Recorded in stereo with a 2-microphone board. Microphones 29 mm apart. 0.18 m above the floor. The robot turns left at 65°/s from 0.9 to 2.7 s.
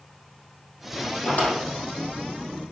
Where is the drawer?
60° left (ahead or behind), 3.5 m; by 1.6 s 40° left (ahead or behind), 3.5 m.